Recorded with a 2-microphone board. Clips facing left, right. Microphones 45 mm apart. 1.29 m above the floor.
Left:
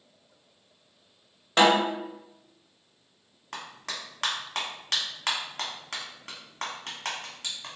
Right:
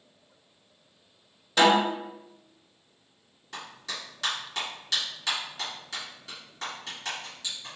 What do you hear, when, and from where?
1.6 s a snare drum: 45° left (ahead or behind), 1.4 m
3.5 s a clap: 55° left (ahead or behind), 1.1 m